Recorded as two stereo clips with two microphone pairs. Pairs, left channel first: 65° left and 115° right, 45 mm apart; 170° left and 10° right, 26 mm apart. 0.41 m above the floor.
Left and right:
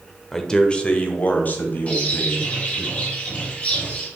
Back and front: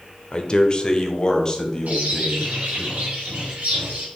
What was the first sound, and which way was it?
A man speaking, 145° left.